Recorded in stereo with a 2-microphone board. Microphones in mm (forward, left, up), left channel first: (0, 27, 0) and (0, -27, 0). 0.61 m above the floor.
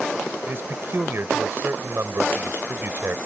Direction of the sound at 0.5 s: 40° right (ahead or behind).